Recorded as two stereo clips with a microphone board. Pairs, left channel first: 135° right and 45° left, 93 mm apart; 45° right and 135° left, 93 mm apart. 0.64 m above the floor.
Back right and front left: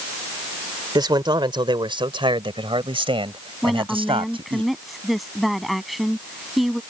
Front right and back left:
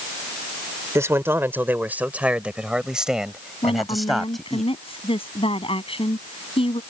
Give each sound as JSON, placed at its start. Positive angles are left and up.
{"t": 0.9, "sound": "a man speaking", "azimuth_deg": 75}
{"t": 3.6, "sound": "a woman speaking", "azimuth_deg": -45}